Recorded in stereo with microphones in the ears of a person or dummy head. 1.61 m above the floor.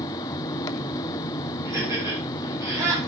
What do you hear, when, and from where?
0.0 s a fan: 25° left (ahead or behind), 0.8 m
1.6 s laughter: 15° right (ahead or behind), 9.5 m